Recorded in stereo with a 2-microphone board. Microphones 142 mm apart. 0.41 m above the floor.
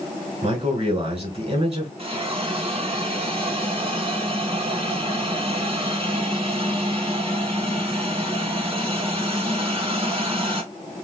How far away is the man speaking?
About 1.9 m.